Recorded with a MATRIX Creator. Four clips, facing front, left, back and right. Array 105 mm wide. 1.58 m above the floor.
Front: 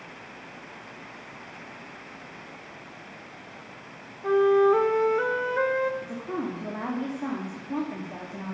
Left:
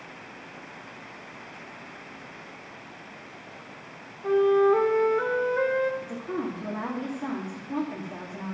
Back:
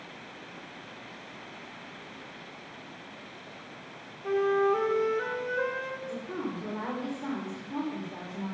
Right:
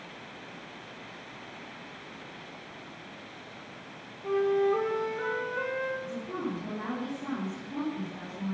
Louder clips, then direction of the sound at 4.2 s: Left 6 dB, front 6 dB; 25° left.